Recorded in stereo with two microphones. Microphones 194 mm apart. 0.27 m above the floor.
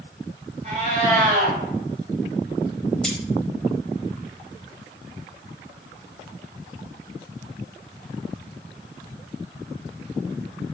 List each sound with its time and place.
0.6 s a cat meowing: 45° right (ahead or behind), 1.2 m
3.0 s cutlery clinking: 5° left (ahead or behind), 0.7 m